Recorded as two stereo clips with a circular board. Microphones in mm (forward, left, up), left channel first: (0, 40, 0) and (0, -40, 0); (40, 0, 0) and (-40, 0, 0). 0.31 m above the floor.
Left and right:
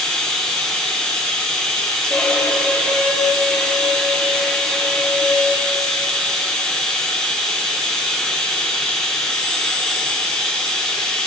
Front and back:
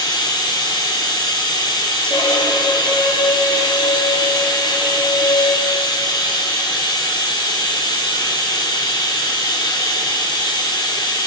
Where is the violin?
5° left, 3 m.